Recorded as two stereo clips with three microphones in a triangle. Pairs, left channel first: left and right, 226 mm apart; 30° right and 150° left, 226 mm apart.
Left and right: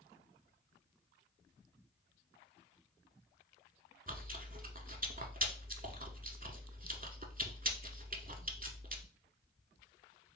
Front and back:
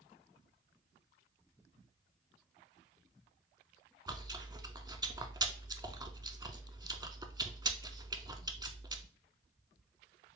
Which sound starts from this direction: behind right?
Chewing, at 4.1 s.